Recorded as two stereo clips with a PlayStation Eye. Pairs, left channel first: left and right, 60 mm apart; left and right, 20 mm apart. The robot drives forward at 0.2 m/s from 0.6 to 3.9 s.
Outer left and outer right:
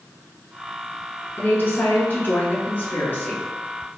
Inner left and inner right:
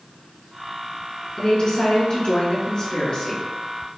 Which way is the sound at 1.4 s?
35° left (ahead or behind).